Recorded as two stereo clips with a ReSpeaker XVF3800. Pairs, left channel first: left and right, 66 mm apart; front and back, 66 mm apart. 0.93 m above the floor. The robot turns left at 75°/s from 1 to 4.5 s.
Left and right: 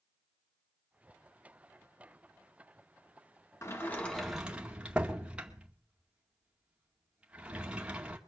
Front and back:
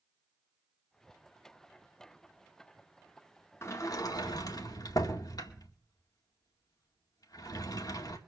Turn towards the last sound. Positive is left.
turn(degrees=-15)